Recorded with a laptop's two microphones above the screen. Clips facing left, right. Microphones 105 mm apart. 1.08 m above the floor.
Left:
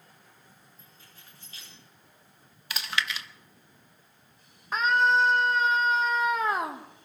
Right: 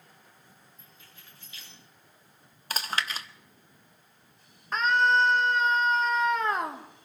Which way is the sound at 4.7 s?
5° left (ahead or behind).